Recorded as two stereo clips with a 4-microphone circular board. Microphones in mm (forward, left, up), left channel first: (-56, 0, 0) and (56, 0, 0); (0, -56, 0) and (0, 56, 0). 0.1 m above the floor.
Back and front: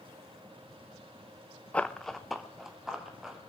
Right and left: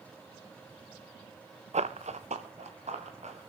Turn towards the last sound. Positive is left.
turn(degrees=85)